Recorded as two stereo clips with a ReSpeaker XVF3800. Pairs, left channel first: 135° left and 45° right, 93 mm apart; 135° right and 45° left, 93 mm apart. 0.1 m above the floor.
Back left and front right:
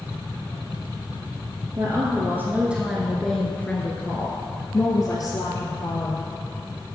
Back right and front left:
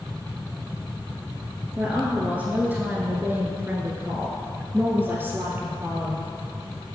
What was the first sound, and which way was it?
A woman speaking, 25° right.